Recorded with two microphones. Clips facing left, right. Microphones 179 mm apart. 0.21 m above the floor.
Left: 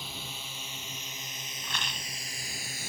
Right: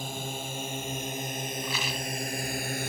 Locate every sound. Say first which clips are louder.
0.0 s a drone: right 9 dB; 50° right (ahead or behind); by 2.9 s 60° right (ahead or behind)
1.6 s a rattle: right 8 dB; 5° right (ahead or behind)